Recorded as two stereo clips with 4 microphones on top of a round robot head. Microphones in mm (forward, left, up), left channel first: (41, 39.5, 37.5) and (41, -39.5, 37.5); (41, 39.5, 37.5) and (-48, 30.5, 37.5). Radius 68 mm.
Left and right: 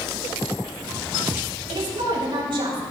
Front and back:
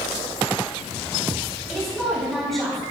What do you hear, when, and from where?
1.7 s a woman speaking: 80° right, 3 m